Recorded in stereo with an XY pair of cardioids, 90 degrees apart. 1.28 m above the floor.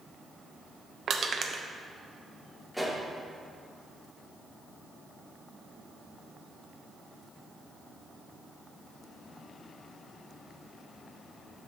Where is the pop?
5° left, 2 m.